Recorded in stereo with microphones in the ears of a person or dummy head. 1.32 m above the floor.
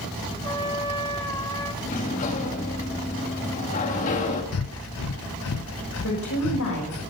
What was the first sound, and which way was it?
A trumpet, 15° left (ahead or behind).